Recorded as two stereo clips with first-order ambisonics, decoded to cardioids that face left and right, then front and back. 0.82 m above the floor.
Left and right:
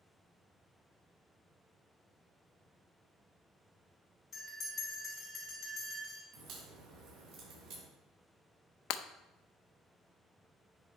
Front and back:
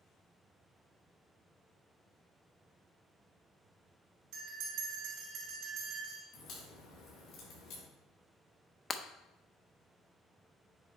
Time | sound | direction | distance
4.3 | a bell | 160° left | 3 m
6.3 | a crack | 50° right | 4 m
8.9 | breaking glass | 70° left | 0.5 m